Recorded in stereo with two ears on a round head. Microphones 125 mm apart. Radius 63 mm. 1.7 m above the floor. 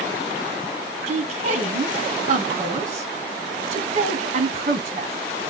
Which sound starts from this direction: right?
A woman speaking, at 1.1 s.